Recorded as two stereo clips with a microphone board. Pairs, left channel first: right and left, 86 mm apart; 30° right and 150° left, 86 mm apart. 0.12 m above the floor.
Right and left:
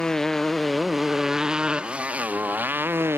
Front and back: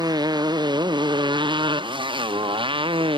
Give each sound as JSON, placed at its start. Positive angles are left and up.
{"t": 0.0, "sound": "a motorcycle", "azimuth_deg": -175}